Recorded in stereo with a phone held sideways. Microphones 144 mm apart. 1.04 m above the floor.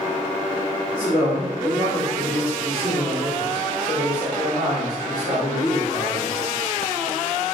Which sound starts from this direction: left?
A man speaking, at 0.9 s.